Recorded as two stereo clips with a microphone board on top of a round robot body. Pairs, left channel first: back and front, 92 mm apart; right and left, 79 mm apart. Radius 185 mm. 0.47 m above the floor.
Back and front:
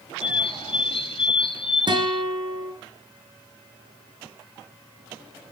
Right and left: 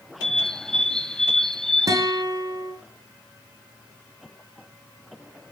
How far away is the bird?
About 1.9 m.